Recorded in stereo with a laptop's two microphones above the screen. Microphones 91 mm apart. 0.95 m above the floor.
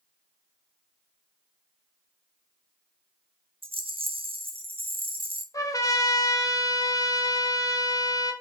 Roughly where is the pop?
No pop in this recording.